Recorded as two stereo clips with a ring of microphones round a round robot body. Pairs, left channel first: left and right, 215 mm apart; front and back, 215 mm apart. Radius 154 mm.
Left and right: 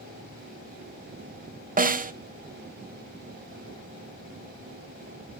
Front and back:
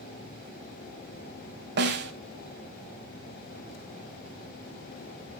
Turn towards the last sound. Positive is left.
turn(degrees=-140)